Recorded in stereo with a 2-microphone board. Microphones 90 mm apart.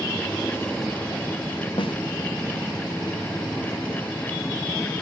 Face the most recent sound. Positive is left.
turn(degrees=75)  # may be behind; listen again after turning